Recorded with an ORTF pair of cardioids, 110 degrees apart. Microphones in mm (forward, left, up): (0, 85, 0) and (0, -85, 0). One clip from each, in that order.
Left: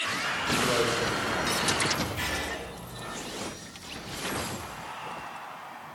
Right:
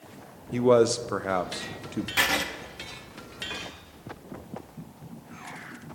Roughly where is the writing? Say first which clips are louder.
Right 7 dB; right.